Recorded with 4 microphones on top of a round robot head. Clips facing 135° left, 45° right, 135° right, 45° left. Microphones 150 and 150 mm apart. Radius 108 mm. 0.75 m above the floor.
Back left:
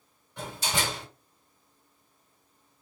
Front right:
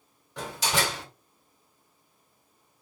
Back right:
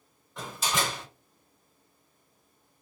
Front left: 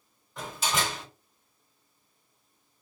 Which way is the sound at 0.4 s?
45° right.